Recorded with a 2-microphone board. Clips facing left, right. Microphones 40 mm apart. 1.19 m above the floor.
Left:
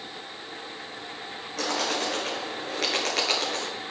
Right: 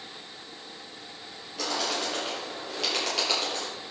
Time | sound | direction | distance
1.6 | a bird | 80° left | 7.5 m